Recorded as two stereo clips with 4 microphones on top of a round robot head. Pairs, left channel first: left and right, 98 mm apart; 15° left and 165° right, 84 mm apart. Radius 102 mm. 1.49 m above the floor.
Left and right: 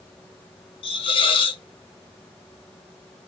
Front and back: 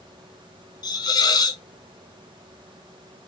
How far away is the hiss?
About 1.0 m.